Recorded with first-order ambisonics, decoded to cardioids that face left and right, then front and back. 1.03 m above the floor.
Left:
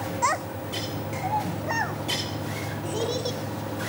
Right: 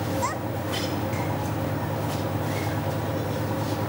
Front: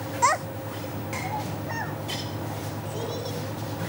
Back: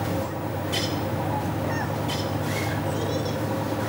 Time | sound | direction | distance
0.2 | a child speaking | 15° left | 0.6 m